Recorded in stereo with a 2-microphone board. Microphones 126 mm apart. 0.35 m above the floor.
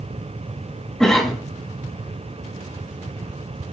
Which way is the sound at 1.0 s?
5° left (ahead or behind).